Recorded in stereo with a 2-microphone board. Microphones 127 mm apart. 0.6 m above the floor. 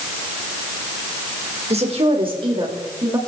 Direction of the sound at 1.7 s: 55° right (ahead or behind).